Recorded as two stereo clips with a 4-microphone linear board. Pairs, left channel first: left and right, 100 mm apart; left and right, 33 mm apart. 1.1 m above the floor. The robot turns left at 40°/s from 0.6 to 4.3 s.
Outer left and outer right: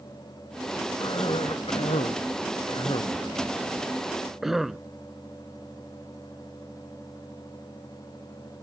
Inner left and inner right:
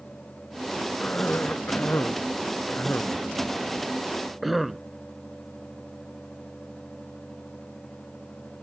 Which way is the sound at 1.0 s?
50° left (ahead or behind).